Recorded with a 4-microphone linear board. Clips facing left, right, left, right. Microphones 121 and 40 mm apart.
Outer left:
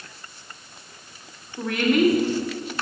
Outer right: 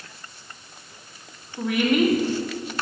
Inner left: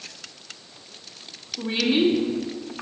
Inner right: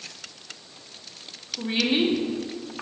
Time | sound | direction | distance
1.6 | a woman speaking | 15° right (ahead or behind) | 1.3 m